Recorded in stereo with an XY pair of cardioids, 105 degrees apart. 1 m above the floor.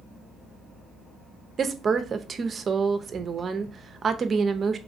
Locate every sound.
1.6 s a woman speaking: 40° right, 0.6 m